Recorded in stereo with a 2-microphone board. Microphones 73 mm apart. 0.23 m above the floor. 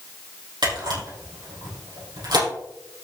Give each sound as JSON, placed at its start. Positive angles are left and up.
{"t": 0.6, "sound": "a camera shutter", "side_deg": -85, "distance_m": 5.5}